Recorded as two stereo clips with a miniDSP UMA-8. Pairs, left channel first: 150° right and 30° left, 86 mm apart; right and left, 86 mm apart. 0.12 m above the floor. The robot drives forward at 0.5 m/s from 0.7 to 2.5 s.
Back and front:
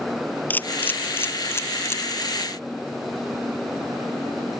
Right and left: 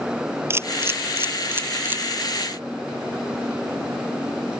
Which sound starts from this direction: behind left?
A camera shutter, at 0.5 s.